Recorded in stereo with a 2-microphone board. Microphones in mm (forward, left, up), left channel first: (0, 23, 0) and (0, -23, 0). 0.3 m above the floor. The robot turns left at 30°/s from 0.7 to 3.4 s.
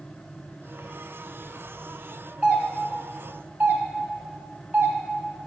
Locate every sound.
2.4 s a doorbell: 35° right (ahead or behind), 2.5 m; by 5.0 s 50° right (ahead or behind), 2.5 m